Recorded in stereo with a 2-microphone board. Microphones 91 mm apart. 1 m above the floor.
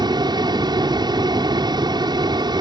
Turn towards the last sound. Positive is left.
turn(degrees=-50)  # may be behind; listen again after turning